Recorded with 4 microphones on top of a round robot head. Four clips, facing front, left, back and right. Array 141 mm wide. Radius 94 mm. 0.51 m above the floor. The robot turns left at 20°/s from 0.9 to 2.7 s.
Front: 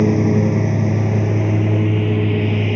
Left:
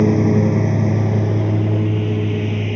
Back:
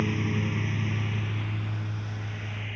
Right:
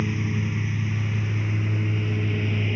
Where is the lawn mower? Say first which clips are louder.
Left 14 dB, front 14 dB; 50° left; by 2.8 s 15° left.